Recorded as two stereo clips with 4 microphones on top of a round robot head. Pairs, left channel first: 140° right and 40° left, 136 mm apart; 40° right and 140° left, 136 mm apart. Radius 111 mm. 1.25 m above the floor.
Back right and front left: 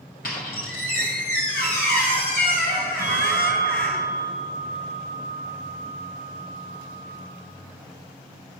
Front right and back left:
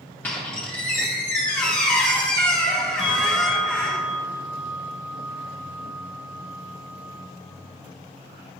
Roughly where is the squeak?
Behind right.